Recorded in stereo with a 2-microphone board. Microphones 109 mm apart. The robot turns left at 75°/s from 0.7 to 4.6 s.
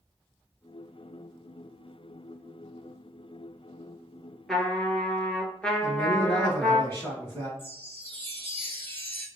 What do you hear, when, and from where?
4.5 s a trumpet: 5° left (ahead or behind), 0.9 m; by 6.8 s 10° left (ahead or behind), 0.9 m
5.8 s a man speaking: 25° left (ahead or behind), 2.0 m
7.6 s a chime: 20° left (ahead or behind), 1.2 m